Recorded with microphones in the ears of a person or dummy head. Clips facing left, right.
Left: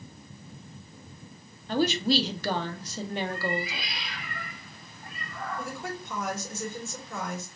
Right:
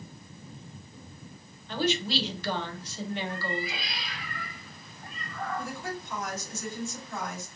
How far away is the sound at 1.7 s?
About 0.7 m.